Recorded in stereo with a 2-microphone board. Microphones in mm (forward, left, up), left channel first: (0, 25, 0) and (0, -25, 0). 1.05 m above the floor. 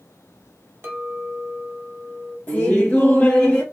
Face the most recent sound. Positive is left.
turn(degrees=25)  # may be behind; listen again after turning